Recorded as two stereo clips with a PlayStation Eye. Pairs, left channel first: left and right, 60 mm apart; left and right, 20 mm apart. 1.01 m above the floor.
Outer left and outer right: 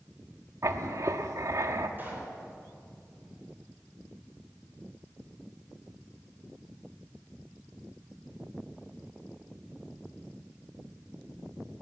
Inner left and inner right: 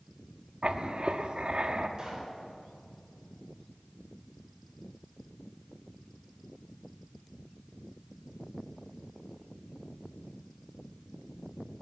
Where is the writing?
60° right (ahead or behind), 0.9 m.